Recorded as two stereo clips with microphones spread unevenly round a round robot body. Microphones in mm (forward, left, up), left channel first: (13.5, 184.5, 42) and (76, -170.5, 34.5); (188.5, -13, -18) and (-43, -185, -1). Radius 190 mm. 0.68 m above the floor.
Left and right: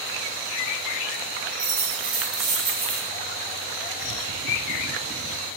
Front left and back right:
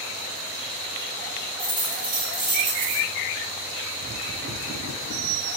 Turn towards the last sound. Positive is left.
turn(degrees=-105)